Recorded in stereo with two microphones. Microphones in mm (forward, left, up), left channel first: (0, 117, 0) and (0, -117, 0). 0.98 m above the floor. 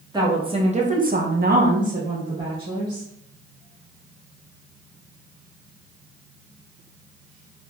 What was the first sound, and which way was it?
A woman speaking, 15° right (ahead or behind).